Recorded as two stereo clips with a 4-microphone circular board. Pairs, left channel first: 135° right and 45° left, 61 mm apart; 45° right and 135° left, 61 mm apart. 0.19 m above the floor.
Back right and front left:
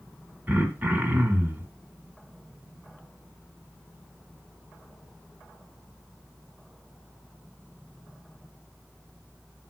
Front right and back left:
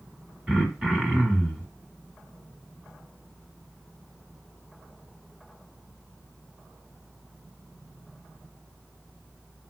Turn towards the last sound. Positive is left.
turn(degrees=75)